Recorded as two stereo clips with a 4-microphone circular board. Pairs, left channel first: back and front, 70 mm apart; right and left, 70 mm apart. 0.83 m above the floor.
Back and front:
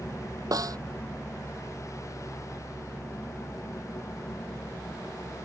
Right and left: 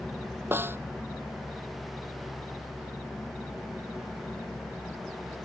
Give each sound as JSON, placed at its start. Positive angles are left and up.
{"t": 0.5, "sound": "a snare drum", "azimuth_deg": 35}